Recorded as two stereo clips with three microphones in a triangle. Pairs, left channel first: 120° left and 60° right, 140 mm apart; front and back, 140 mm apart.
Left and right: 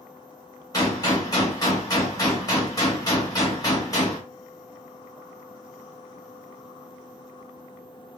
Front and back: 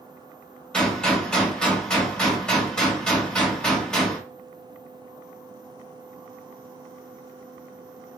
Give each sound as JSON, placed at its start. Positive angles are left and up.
{"t": 0.7, "sound": "a gunshot", "azimuth_deg": 80, "distance_m": 1.6}